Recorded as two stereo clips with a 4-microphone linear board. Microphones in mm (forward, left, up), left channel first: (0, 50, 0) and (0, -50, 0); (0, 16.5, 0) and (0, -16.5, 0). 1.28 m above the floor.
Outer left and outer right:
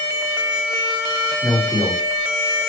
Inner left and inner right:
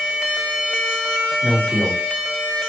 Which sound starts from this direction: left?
A man speaking, at 1.4 s.